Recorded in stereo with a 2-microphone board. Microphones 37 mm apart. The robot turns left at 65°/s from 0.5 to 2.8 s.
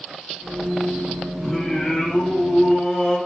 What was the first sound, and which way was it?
Singing, 10° left (ahead or behind).